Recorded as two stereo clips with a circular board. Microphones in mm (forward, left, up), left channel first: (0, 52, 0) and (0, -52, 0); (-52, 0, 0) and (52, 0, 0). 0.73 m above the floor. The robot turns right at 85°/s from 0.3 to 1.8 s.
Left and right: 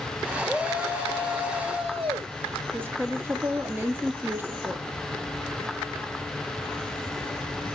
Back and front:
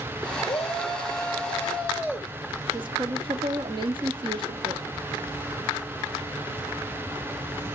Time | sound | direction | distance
0.5 | a shout | straight behind | 3 m
2.7 | a woman speaking | 25° right | 1.1 m